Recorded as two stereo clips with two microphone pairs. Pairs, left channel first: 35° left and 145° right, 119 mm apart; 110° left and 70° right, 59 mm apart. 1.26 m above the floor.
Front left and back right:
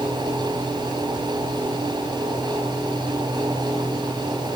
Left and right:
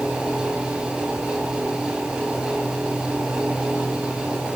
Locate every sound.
Only background noise.